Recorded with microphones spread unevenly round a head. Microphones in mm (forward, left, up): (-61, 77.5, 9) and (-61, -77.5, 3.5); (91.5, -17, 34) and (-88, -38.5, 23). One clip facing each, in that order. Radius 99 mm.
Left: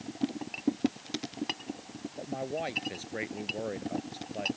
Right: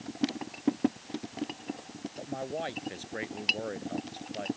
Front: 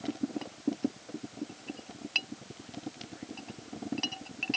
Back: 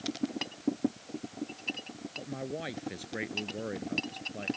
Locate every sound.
2.2 s a man speaking: 170° left